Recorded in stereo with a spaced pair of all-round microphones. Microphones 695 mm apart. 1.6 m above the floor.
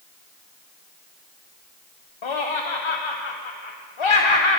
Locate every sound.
2.2 s laughter: 45° left (ahead or behind), 0.6 m